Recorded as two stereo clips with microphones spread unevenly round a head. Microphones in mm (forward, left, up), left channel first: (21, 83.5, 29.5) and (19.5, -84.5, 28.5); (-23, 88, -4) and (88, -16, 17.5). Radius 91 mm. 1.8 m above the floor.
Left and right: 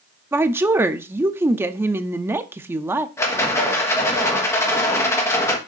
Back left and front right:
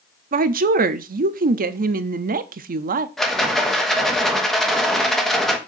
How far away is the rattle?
About 1.2 m.